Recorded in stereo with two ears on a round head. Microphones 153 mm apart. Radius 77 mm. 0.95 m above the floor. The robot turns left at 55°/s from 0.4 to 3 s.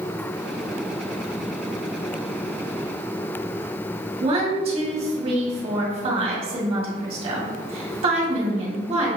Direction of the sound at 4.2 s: 35° right (ahead or behind).